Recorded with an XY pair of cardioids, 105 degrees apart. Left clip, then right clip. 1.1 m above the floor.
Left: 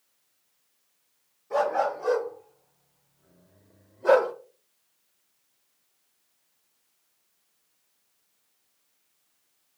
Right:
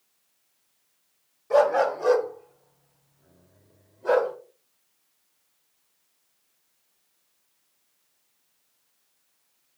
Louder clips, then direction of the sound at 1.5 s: Right 5 dB; 70° right.